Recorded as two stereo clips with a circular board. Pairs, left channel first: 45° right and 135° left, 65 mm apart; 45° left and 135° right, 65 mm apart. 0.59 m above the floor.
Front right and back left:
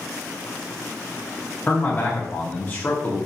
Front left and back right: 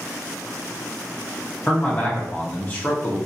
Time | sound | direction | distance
1.7 | a man speaking | 5° right | 0.7 m